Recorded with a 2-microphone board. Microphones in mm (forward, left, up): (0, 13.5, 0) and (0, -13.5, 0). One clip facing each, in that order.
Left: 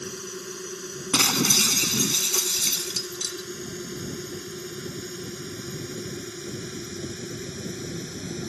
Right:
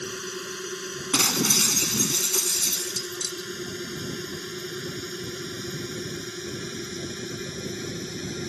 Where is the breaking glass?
20° left (ahead or behind).